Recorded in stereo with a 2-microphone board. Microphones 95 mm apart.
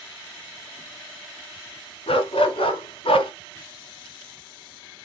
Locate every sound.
2.1 s a dog barking: 85° left, 2 m; by 3.3 s 80° left, 1.6 m